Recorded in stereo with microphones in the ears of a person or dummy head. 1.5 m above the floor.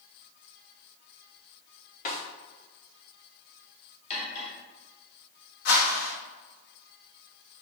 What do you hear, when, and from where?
2.0 s a snare drum: 40° left (ahead or behind), 2.5 m
4.1 s cutlery clinking: 30° left (ahead or behind), 3 m
5.7 s a whoosh: 65° left (ahead or behind), 1.6 m